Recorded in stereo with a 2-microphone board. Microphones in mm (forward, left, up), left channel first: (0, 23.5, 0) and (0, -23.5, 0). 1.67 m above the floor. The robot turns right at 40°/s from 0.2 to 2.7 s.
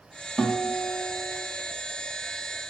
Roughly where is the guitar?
Behind.